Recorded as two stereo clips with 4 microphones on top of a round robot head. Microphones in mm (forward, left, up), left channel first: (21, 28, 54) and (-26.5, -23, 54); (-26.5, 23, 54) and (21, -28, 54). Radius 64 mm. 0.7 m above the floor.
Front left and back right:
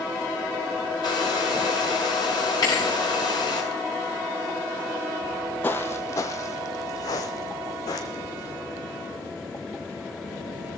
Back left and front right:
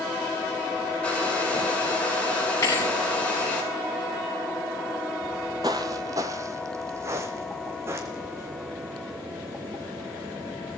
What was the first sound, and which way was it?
A hair dryer, 60° left.